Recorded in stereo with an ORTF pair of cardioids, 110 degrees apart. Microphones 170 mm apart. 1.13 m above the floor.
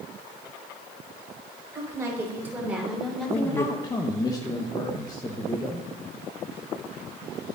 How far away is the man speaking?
About 0.9 m.